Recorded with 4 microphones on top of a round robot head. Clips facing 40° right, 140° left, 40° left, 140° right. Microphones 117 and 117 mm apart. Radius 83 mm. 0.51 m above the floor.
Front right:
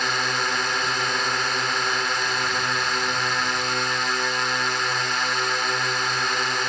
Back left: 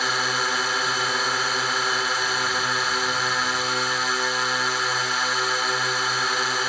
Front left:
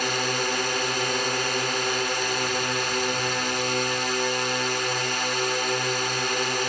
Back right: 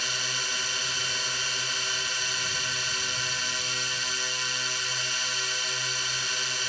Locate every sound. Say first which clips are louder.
0.0 s a drone: even, front left 11 dB; 55° left